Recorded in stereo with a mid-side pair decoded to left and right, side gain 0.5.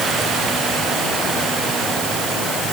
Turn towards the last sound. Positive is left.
No sound to turn to.